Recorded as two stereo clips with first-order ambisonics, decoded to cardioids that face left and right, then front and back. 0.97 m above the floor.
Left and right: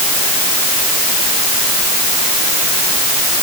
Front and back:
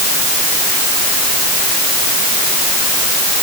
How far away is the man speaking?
No man speaking in this recording.